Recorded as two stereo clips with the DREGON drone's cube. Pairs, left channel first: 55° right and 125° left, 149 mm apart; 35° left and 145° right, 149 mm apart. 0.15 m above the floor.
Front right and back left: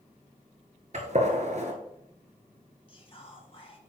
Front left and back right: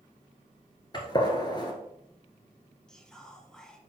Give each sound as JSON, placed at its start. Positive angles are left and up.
{"t": 0.9, "sound": "a gunshot", "azimuth_deg": 95, "distance_m": 1.4}
{"t": 2.9, "sound": "whispering", "azimuth_deg": -50, "distance_m": 1.5}